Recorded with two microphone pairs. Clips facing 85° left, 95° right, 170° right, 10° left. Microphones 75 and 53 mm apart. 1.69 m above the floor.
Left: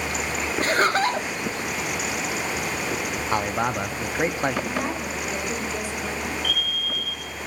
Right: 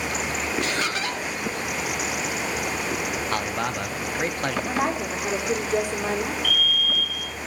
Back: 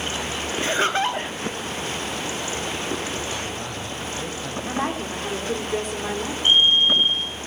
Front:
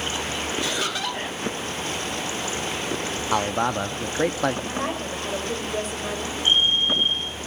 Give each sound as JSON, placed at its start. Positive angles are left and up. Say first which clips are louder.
{"t": 0.6, "sound": "laughter", "louder": "left 10 dB, back 9 dB", "azimuth_deg": 135, "distance_m": 0.6}
{"t": 3.3, "sound": "a man speaking", "louder": "left 6 dB, front 8 dB", "azimuth_deg": 10, "distance_m": 1.0}
{"t": 4.7, "sound": "a woman speaking", "louder": "right 2 dB, back 2 dB", "azimuth_deg": -130, "distance_m": 5.0}
{"t": 6.4, "sound": "a fire alarm", "louder": "right 3 dB, back 4 dB", "azimuth_deg": 170, "distance_m": 6.0}